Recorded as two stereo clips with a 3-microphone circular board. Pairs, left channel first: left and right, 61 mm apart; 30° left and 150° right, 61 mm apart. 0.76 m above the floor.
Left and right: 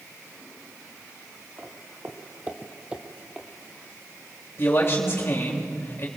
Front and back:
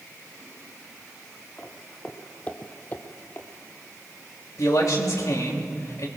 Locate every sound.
1.6 s footsteps: 40° right, 1.7 m; by 3.5 s 5° right, 1.0 m
4.6 s a man speaking: 45° left, 3 m